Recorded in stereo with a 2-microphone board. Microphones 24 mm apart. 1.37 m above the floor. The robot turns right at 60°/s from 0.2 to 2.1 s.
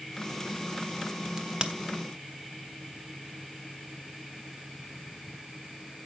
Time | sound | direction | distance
1.4 | a crack | 25° right (ahead or behind) | 1.2 m